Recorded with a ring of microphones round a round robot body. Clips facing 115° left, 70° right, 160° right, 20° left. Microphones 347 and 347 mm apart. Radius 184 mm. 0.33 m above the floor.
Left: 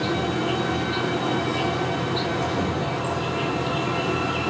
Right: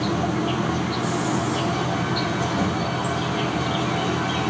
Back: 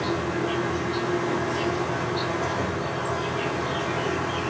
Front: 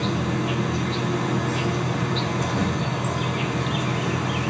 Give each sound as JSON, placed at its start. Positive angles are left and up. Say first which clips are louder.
{"t": 0.0, "sound": "an insect", "louder": "right 1 dB, front 1 dB", "azimuth_deg": 5, "distance_m": 4.0}